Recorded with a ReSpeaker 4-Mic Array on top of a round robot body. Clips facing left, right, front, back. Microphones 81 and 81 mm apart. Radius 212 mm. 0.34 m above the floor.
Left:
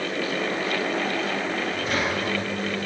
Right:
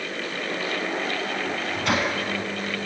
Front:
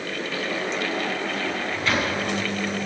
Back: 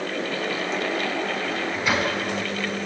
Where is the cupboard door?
No cupboard door in this recording.